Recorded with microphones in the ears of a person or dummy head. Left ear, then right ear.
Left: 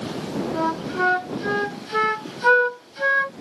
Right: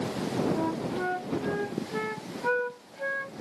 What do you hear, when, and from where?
0.5 s a flute: 55° left (ahead or behind)